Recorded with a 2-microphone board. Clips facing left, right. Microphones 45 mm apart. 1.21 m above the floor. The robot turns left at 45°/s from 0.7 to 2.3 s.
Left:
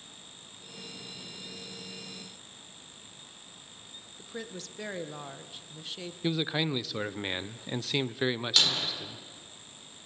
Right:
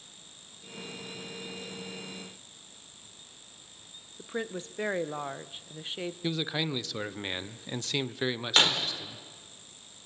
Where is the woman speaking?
30° right (ahead or behind), 0.9 m.